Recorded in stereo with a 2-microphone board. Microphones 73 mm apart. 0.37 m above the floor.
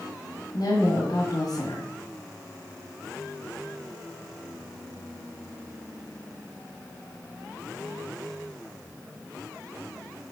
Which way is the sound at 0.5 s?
60° left (ahead or behind).